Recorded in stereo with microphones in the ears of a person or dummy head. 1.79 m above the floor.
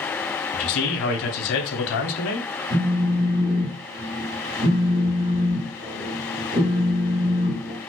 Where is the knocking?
No knocking in this recording.